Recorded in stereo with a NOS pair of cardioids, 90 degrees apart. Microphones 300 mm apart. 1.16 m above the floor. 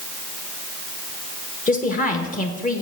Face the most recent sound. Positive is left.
turn(degrees=25)